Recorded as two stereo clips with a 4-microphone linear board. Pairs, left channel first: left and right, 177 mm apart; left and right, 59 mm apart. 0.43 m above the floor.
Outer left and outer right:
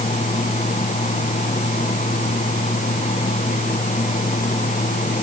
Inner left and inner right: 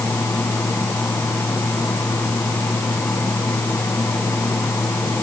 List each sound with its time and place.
Only background noise.